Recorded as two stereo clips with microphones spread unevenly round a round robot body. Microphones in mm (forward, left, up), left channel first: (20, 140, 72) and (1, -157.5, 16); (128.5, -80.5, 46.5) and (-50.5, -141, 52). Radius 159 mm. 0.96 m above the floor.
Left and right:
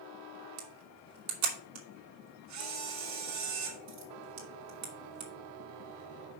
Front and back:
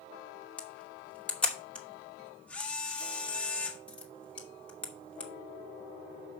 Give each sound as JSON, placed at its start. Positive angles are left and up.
{"t": 0.6, "sound": "a camera shutter", "azimuth_deg": -65, "distance_m": 2.5}